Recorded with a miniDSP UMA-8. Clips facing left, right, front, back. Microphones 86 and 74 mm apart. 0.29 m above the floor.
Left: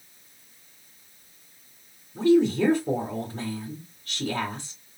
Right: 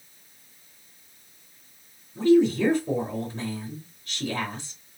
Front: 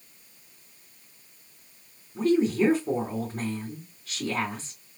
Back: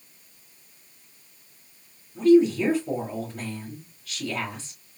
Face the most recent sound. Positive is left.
turn(degrees=65)